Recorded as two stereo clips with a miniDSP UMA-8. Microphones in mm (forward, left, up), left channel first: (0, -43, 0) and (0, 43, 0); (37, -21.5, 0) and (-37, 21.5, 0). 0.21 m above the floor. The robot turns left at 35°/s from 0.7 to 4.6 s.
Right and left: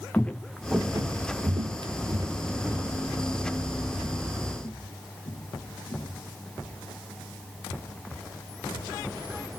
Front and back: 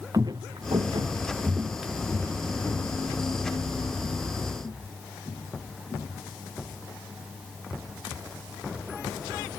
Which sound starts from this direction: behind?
Footsteps, at 0.1 s.